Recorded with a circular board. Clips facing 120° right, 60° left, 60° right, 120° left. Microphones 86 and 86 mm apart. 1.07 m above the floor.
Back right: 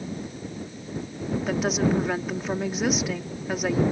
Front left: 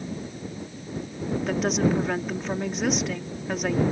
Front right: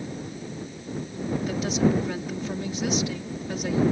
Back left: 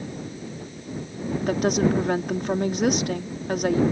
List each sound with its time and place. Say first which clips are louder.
1.5 s a woman speaking: even, back left 3 dB; 155° left